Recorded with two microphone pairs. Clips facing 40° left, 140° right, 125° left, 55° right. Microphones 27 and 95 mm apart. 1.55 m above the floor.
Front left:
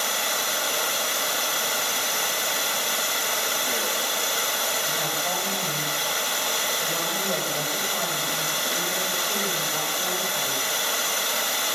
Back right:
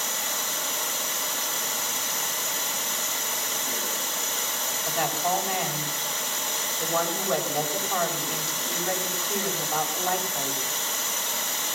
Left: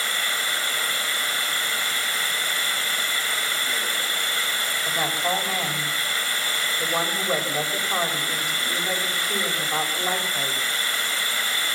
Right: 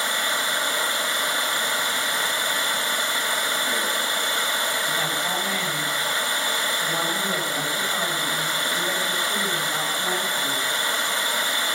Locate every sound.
0.0 s running water: 10° left, 2 m
4.8 s a woman speaking: 150° left, 8 m